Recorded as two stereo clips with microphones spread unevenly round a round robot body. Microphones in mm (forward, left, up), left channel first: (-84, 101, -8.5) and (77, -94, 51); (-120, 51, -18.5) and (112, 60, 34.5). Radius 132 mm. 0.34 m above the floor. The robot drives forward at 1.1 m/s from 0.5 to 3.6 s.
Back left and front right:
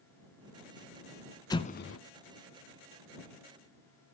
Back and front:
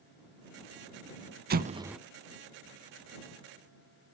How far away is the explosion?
About 0.8 m.